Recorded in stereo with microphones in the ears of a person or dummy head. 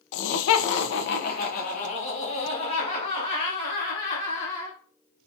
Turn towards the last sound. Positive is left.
turn(degrees=25)  # may be behind; listen again after turning